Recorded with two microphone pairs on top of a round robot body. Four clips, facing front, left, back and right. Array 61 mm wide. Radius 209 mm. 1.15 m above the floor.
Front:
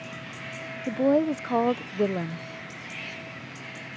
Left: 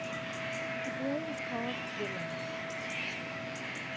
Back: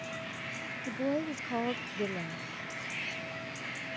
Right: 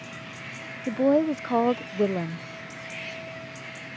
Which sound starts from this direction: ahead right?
A woman speaking, at 0.9 s.